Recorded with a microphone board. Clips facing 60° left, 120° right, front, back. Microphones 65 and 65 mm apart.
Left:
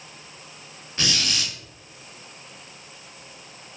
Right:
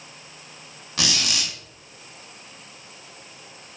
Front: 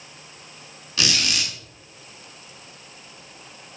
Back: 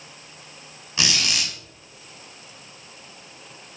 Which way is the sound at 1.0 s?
110° right.